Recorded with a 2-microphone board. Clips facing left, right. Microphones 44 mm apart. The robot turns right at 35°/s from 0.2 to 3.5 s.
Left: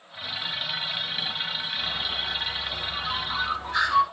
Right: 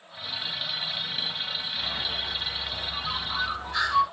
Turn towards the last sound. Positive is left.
turn(degrees=35)